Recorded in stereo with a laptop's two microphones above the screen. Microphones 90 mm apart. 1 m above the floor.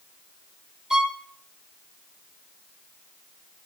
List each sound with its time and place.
0.9 s a violin: 5° right (ahead or behind), 1.4 m